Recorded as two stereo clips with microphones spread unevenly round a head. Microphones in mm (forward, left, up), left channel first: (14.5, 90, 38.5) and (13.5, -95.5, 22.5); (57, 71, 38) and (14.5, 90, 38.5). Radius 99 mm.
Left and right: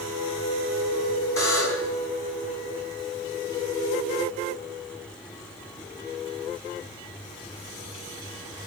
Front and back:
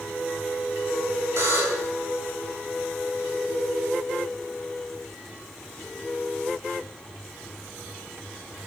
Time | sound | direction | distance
1.4 | a buzzer | 165° left | 4.5 m